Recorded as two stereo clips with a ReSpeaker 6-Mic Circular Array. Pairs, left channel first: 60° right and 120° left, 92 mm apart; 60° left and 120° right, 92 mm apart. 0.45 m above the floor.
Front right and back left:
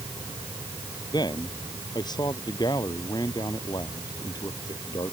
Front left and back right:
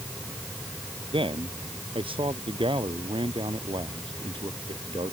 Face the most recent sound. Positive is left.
turn(degrees=-100)